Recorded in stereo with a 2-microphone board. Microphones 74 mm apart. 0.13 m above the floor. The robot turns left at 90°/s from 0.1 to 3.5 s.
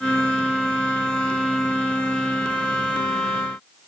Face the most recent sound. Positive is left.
No sound to turn to.